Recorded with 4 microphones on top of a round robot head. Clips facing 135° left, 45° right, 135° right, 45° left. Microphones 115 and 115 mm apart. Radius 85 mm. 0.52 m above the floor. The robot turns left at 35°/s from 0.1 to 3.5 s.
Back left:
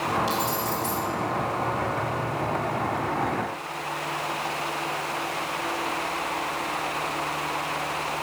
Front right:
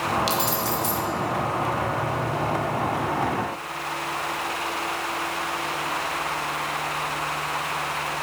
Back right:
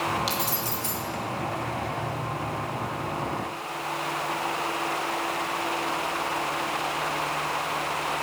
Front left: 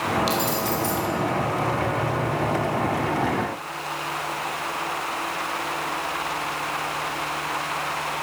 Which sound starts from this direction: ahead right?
Keys jangling, at 0.3 s.